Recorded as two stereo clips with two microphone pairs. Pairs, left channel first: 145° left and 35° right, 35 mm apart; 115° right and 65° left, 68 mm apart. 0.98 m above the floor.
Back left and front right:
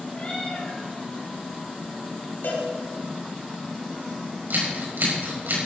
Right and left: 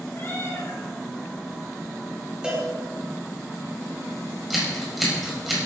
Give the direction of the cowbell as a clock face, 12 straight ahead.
7 o'clock.